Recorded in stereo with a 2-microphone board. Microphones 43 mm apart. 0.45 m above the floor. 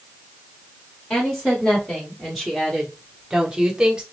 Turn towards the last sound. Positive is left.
turn(degrees=-20)  # may be behind; listen again after turning